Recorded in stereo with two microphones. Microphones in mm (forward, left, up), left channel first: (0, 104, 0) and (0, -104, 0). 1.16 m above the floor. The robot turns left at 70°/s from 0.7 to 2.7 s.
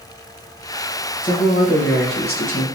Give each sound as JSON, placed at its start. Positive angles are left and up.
{"t": 1.2, "sound": "a man speaking", "azimuth_deg": 135, "distance_m": 1.1}